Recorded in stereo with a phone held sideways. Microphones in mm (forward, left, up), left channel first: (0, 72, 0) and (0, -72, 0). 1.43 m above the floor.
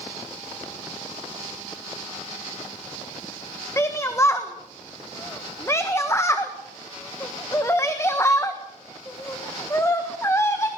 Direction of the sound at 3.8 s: 20° left (ahead or behind).